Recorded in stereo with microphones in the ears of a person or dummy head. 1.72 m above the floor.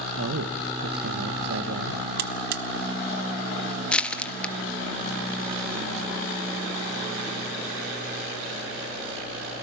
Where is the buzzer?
55° right (ahead or behind), 1.0 m.